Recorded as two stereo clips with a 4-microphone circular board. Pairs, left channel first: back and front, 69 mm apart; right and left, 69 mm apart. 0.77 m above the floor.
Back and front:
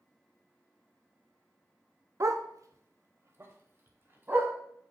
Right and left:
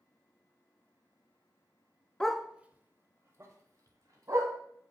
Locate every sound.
2.2 s a dog barking: 10° right, 0.5 m; by 4.5 s 60° left, 1.7 m